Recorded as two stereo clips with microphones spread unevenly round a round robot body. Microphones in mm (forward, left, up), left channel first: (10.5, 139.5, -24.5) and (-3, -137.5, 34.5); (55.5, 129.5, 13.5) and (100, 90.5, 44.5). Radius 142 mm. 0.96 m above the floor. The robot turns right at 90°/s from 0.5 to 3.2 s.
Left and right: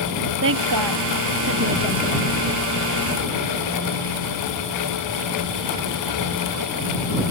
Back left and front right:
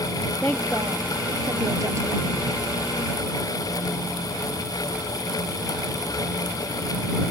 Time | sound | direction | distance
0.4 | a woman speaking | 140° right | ?